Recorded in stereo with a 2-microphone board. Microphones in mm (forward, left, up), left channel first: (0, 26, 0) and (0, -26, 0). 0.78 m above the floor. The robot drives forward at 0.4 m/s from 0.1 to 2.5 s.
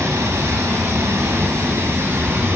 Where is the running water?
70° right (ahead or behind), 3.5 m; by 2.6 s 55° right (ahead or behind), 4 m.